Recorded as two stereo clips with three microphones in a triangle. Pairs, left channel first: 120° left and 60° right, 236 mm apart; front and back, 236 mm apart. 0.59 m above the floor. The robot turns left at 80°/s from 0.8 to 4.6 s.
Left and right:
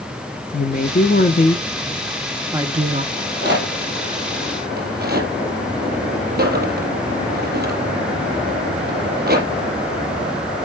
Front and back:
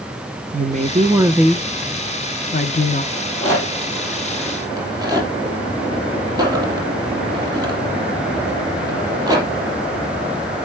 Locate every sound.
0.5 s a woman speaking: 145° left, 0.8 m; by 3.0 s 35° right, 0.8 m
3.1 s a rattle: 10° left, 4 m; by 9.5 s 105° right, 4 m